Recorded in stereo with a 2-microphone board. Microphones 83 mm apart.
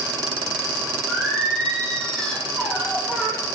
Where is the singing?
10° left (ahead or behind), 5 m.